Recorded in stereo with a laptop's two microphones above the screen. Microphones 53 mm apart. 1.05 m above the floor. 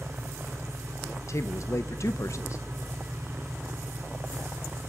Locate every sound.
0.0 s an engine running: 60° right (ahead or behind), 4.5 m
1.3 s a man speaking: 60° left (ahead or behind), 0.5 m